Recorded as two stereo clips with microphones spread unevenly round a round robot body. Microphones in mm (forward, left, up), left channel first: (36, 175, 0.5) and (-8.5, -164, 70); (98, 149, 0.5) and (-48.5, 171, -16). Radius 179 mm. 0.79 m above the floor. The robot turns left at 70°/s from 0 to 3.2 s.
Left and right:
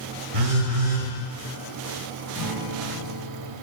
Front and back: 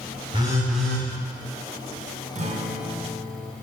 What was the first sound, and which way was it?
A phone buzzing, 115° right.